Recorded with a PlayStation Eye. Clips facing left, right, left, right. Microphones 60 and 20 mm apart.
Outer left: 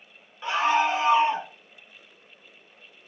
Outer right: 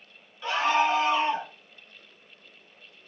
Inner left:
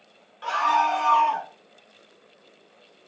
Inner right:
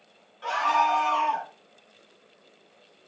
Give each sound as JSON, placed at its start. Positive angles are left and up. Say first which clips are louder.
{"t": 0.4, "sound": "a scream", "louder": "outer left 1 dB, inner left 1 dB", "side_deg": 20, "distance_m": 1.8}